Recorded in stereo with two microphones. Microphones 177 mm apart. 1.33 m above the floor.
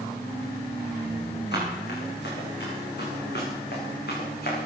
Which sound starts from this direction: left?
Running footsteps, at 1.5 s.